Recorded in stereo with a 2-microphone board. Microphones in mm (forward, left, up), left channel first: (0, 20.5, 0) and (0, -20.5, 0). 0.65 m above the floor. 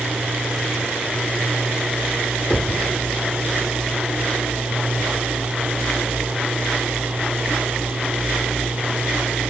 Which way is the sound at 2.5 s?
20° left (ahead or behind).